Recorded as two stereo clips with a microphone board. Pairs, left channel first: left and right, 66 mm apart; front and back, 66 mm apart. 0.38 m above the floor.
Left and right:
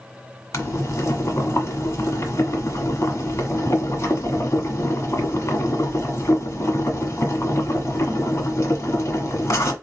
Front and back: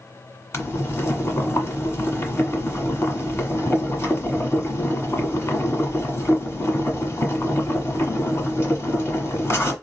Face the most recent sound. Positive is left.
turn(degrees=45)